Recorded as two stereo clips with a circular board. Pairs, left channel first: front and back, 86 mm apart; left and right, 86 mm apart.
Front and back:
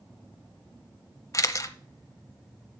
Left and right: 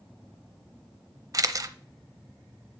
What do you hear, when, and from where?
1.3 s a camera shutter: 50° right, 0.7 m